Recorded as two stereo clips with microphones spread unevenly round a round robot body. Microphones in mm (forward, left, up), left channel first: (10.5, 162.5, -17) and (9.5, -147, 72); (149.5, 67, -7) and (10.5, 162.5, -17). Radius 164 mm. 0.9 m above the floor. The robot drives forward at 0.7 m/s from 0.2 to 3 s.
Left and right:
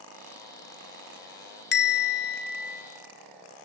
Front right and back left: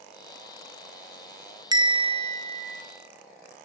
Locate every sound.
1.7 s a bell: 90° left, 1.3 m; by 2.8 s 130° left, 1.5 m